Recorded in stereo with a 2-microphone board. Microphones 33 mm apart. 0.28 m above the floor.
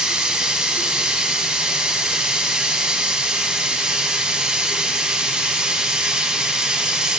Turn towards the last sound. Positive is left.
turn(degrees=-25)  # may be behind; listen again after turning